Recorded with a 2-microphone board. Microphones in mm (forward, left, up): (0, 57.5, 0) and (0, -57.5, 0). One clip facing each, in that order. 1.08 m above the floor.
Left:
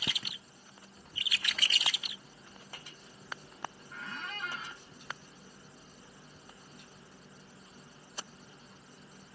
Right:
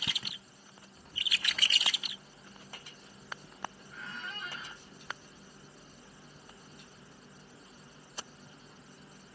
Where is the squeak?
70° left (ahead or behind), 0.8 m.